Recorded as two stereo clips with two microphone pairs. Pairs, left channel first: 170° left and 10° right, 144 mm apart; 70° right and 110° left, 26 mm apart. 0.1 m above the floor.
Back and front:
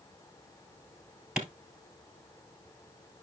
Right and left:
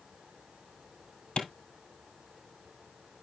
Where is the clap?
90° right, 1.5 m.